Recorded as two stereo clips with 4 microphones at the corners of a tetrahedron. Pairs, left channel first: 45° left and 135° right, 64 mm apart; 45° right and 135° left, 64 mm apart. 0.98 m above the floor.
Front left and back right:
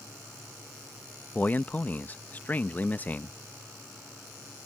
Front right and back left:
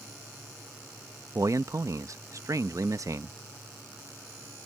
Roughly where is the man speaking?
Left.